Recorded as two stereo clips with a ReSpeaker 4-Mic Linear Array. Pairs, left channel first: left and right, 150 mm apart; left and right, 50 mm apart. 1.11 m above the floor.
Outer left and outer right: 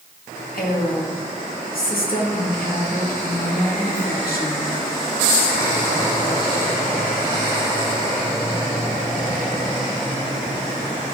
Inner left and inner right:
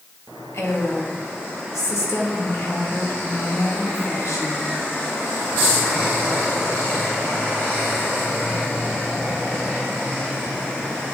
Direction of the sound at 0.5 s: 75° left (ahead or behind).